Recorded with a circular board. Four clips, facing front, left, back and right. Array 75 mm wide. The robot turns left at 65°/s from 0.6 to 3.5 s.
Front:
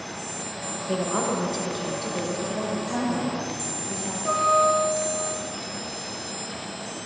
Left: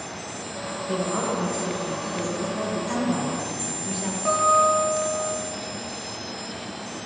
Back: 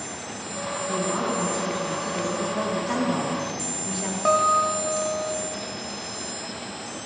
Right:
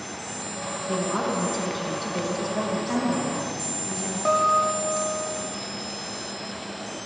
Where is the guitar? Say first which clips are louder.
Left 2 dB, even; 165° right, 0.7 m.